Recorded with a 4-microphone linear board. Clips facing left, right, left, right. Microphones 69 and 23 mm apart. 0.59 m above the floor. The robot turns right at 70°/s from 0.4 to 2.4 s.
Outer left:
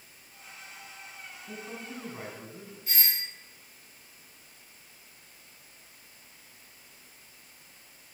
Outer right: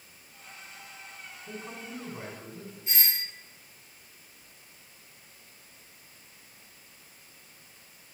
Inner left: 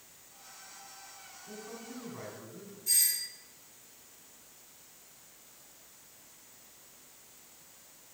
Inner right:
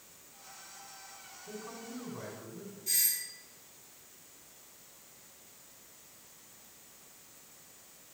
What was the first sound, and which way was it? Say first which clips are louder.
A man speaking: even, inner right 1 dB; 50° right.